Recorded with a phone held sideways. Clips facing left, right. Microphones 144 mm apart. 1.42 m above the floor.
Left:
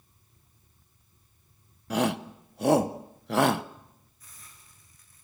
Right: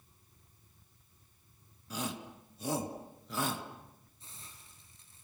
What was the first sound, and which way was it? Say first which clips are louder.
A shout: left 13 dB; 70° left (ahead or behind).